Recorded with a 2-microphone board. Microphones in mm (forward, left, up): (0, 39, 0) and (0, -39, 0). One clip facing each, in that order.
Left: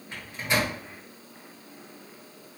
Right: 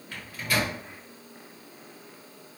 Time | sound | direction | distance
0.1 | a microwave | 25° left (ahead or behind) | 1.0 m